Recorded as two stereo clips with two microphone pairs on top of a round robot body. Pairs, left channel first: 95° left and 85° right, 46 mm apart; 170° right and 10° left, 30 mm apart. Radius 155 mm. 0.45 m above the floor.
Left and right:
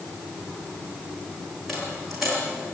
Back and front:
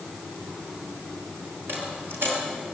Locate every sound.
1.7 s a dropped coin: straight ahead, 6.5 m